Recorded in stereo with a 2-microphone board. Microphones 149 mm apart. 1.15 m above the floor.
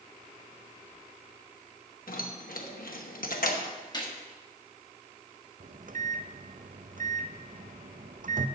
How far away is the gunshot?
About 1.6 m.